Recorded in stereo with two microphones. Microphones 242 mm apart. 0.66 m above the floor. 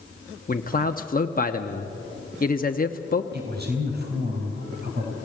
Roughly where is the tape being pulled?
No tape being pulled in this recording.